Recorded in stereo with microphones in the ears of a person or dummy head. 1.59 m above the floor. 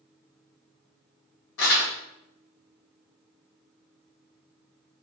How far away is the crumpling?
About 2 m.